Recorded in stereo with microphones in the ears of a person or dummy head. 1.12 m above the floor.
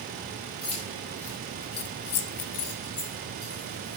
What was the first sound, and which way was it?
Keys jangling, 35° left (ahead or behind).